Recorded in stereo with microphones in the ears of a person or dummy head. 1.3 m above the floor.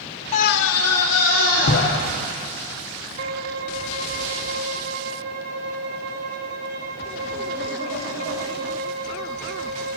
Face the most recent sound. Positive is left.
turn(degrees=-55)  # may be behind; listen again after turning